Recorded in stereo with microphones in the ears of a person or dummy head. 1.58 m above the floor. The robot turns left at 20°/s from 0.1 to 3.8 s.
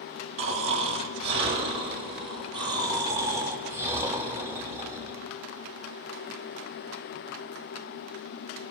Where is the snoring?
90° right, 2.5 m; by 5.3 s 160° right, 2.5 m.